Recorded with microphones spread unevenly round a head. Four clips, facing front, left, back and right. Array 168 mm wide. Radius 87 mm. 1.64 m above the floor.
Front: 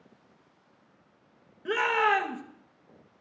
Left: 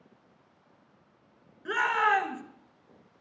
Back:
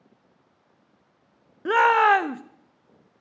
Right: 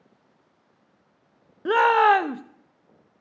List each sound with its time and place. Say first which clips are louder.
1.6 s a shout: right 9 dB, back 8 dB; 125° right, 0.6 m